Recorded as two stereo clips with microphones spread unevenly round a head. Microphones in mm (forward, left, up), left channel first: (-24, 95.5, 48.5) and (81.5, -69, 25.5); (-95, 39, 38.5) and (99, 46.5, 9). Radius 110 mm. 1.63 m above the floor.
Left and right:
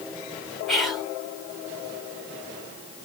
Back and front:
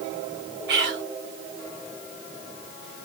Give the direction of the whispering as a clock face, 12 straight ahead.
11 o'clock.